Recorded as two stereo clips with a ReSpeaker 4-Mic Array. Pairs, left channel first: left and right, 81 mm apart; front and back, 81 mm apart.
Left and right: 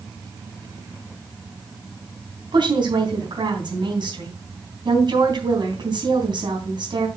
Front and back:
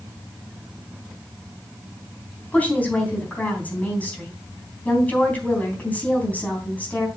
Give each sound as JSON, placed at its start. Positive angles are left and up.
{"t": 2.5, "sound": "a woman speaking", "azimuth_deg": -70, "distance_m": 3.5}